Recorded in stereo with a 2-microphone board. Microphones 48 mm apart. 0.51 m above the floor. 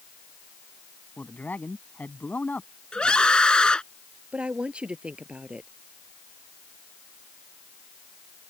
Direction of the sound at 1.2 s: 35° left (ahead or behind).